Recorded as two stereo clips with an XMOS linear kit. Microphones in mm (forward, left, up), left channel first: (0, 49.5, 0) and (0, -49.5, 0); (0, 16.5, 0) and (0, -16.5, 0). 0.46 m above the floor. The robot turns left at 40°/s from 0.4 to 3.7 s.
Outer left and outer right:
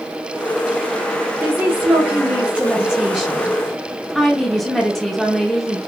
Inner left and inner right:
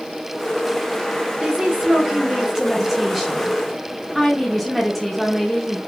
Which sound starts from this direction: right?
A woman speaking, at 1.4 s.